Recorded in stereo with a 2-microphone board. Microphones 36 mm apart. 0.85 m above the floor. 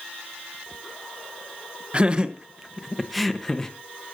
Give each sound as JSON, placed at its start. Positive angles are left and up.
{"t": 1.9, "sound": "laughter", "side_deg": -25, "distance_m": 1.0}